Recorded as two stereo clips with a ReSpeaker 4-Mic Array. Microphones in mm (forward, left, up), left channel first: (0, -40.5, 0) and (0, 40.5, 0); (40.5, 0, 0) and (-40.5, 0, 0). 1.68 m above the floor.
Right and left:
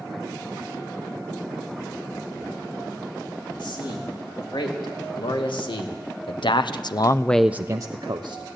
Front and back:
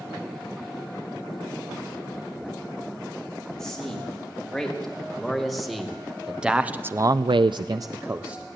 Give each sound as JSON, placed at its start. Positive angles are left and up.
{"t": 3.6, "sound": "a man speaking", "azimuth_deg": -85, "distance_m": 5.0}